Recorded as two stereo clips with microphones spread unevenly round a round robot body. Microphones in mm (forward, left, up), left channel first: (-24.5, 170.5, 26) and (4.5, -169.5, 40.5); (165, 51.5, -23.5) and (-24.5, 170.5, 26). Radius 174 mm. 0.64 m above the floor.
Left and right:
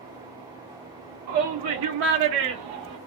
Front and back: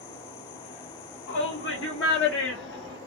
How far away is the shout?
About 1.1 m.